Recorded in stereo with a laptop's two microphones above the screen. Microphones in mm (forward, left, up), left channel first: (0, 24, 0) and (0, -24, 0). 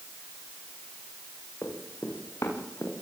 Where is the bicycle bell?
I don't hear a bicycle bell.